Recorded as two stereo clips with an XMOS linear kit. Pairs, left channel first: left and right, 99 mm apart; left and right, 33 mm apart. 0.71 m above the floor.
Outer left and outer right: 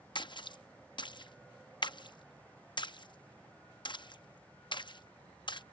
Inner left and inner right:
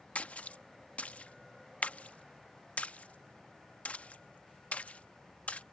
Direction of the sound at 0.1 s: 50° left (ahead or behind).